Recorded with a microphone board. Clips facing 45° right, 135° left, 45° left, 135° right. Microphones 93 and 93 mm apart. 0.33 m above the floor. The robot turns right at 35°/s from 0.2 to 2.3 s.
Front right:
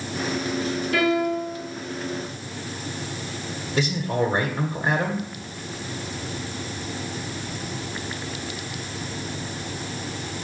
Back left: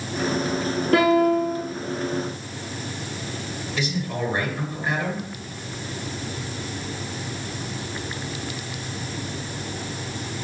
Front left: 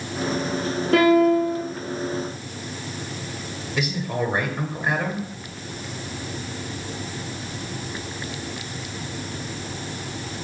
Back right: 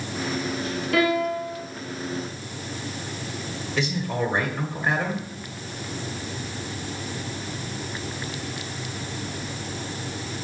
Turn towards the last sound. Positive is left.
turn(degrees=-35)